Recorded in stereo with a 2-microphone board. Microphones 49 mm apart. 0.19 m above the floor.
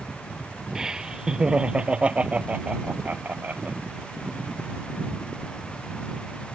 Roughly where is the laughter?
Centre.